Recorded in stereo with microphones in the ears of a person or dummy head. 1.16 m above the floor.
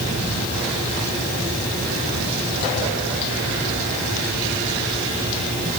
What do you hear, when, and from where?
Only background noise.